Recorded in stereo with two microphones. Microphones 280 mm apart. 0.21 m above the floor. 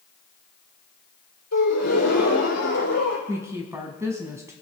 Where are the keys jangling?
No keys jangling in this recording.